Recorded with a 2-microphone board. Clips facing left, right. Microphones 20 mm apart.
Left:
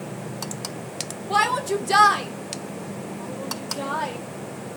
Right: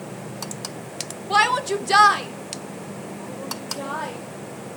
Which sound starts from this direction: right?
A shout, at 1.3 s.